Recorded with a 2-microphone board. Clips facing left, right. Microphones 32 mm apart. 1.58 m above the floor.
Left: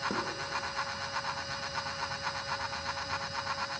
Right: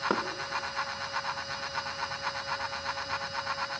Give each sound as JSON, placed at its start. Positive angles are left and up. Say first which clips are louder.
{"t": 0.1, "sound": "knocking", "louder": "right 5 dB", "side_deg": -80, "distance_m": 1.8}